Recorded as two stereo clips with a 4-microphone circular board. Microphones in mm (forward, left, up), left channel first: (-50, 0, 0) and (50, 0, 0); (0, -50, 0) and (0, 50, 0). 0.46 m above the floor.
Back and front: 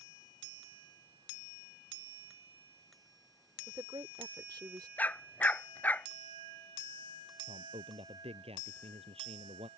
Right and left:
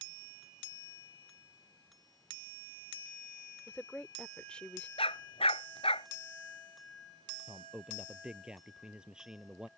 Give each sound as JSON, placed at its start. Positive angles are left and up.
{"t": 3.7, "sound": "a woman speaking", "azimuth_deg": -15}
{"t": 5.0, "sound": "a dog barking", "azimuth_deg": -105}
{"t": 7.5, "sound": "a man speaking", "azimuth_deg": 10}